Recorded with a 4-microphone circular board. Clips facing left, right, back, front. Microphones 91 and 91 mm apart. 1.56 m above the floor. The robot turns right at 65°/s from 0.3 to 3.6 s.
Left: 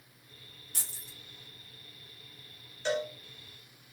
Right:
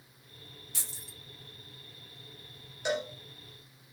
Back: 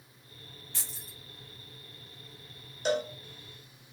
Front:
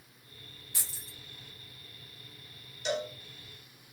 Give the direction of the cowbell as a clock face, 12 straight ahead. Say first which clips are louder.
Left 1 dB, back 4 dB; 5 o'clock.